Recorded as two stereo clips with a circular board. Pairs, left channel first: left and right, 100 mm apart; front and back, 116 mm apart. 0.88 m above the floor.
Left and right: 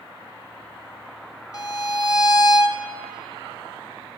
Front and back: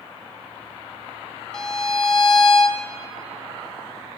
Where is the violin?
80° left, 0.9 m.